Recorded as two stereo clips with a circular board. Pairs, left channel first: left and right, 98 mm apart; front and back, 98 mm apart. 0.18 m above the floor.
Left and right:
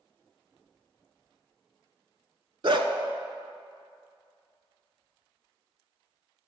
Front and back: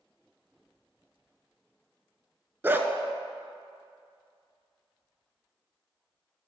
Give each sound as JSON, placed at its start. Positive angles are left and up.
{"t": 2.6, "sound": "a dog barking", "azimuth_deg": -115, "distance_m": 0.5}